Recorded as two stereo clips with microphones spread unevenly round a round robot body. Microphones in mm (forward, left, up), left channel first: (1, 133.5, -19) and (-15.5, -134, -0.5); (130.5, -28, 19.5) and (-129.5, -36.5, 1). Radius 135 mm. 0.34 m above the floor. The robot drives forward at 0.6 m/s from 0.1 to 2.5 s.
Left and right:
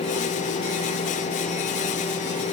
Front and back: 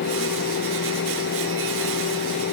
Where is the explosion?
No explosion in this recording.